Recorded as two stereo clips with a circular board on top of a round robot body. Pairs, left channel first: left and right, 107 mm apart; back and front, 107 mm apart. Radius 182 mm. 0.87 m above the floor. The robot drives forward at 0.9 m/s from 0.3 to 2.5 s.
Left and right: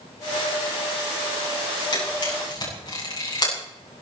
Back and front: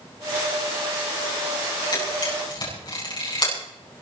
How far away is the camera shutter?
About 8 m.